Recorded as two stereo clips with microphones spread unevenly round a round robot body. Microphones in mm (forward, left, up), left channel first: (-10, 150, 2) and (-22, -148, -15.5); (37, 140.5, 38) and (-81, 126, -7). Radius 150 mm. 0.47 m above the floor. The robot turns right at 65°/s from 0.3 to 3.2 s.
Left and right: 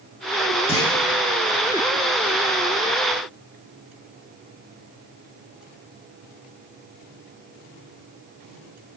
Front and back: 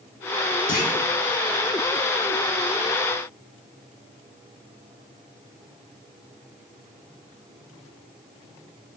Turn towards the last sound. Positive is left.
turn(degrees=170)